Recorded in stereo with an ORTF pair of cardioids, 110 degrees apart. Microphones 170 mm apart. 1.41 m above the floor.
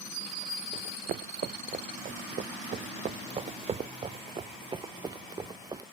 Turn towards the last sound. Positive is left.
turn(degrees=-20)